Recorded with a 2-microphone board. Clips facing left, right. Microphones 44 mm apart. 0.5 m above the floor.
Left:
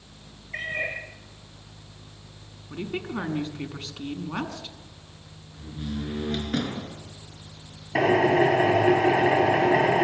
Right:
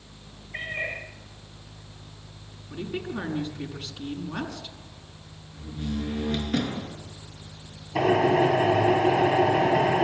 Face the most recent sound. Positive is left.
turn(degrees=85)